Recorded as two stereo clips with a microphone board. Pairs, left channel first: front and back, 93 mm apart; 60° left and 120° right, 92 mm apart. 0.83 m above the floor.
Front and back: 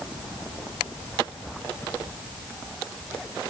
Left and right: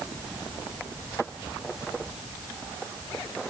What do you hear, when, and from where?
Only background noise.